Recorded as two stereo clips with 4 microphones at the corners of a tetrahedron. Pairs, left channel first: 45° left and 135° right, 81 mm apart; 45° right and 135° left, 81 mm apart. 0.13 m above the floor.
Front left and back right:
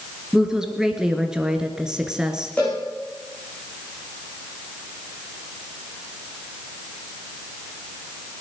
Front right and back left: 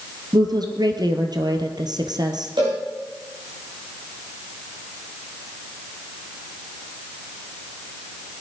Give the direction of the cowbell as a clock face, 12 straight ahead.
8 o'clock.